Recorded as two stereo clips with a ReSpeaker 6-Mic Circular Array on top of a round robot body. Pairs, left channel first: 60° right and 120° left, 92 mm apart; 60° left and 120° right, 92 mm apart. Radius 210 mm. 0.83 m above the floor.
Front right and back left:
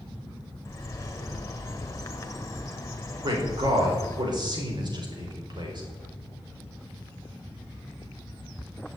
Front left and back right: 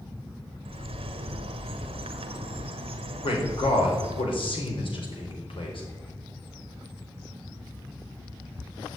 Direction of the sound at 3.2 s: 80° left.